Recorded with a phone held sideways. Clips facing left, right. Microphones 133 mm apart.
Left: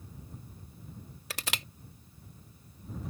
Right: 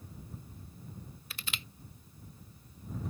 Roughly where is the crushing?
Left.